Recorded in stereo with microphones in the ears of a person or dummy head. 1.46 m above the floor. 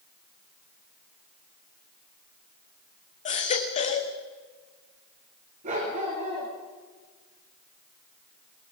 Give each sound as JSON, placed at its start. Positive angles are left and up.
{"t": 3.2, "sound": "a baby crying", "side_deg": 40, "distance_m": 2.5}
{"t": 5.6, "sound": "a dog barking", "side_deg": -40, "distance_m": 6.5}